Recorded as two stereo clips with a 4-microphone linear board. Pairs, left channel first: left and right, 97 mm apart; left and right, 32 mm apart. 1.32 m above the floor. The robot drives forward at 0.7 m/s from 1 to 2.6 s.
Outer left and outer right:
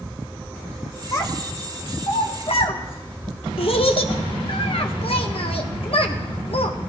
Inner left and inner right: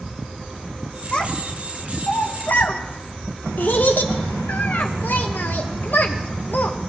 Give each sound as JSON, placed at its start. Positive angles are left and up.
{"t": 1.1, "sound": "a child speaking", "side_deg": 30, "distance_m": 1.5}